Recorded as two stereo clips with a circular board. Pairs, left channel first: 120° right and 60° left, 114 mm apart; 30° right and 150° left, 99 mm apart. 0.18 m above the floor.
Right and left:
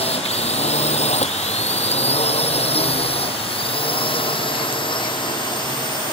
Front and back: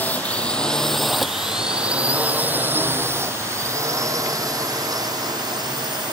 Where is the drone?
100° right; by 6.1 s 165° right.